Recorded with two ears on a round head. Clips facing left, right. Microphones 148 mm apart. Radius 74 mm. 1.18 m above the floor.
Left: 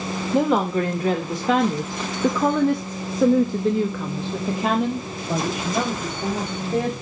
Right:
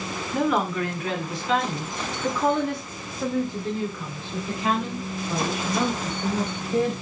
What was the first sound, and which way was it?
A woman speaking, 20° left (ahead or behind).